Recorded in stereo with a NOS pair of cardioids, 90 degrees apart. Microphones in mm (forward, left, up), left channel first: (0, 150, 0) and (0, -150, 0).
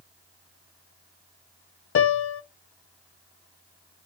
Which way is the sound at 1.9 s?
45° left.